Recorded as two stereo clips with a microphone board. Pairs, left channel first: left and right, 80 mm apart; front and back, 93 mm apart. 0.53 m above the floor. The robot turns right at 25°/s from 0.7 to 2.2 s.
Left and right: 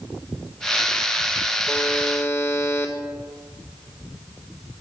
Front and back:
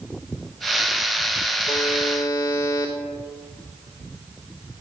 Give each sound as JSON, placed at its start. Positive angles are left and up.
{"t": 1.7, "sound": "a buzzer", "azimuth_deg": 25, "distance_m": 1.6}